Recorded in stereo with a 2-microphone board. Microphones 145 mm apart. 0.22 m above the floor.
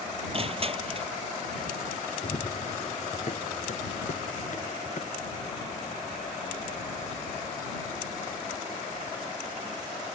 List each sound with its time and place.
0.3 s crushing: 45° right (ahead or behind)
2.2 s running footsteps: 50° left (ahead or behind); by 10.1 s 60° left (ahead or behind)